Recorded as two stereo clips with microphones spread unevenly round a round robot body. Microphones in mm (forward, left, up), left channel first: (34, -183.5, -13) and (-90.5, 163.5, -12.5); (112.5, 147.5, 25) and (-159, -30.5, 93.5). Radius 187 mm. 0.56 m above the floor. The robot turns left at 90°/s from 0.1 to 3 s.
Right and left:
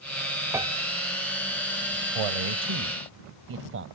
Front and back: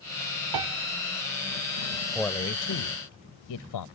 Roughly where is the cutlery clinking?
No cutlery clinking in this recording.